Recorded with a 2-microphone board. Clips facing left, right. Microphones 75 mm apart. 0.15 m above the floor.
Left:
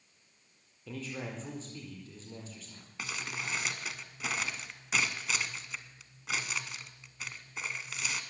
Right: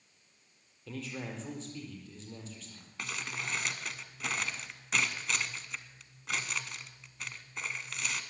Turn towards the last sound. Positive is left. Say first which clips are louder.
# even
turn(degrees=5)  # may be behind; listen again after turning